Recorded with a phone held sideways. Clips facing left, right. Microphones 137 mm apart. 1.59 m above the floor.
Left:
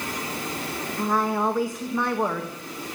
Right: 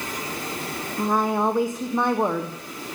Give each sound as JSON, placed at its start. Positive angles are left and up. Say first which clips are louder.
{"t": 1.0, "sound": "a woman speaking", "louder": "right 2 dB", "side_deg": -20, "distance_m": 1.2}